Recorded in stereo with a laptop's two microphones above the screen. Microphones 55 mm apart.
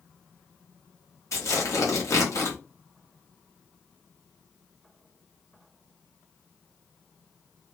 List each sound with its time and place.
1.3 s tearing paper: 60° left (ahead or behind), 0.9 m